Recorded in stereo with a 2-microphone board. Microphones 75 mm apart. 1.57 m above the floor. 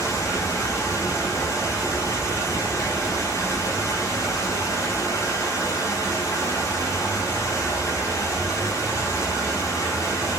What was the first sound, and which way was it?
Running water, 45° left (ahead or behind).